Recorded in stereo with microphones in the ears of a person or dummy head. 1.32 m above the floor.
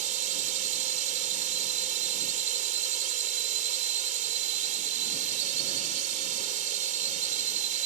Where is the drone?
45° right (ahead or behind).